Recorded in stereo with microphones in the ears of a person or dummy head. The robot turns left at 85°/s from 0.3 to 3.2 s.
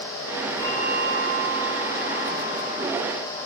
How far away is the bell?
About 8.5 m.